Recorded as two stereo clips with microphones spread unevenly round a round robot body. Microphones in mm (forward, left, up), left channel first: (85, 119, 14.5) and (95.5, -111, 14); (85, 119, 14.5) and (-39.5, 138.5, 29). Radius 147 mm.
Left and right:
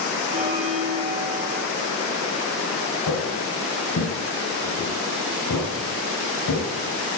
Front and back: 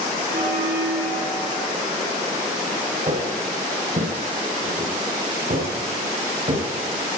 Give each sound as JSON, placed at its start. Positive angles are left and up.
{"t": 0.3, "sound": "a bell", "azimuth_deg": -155, "distance_m": 7.0}
{"t": 3.1, "sound": "footsteps", "azimuth_deg": 135, "distance_m": 10.0}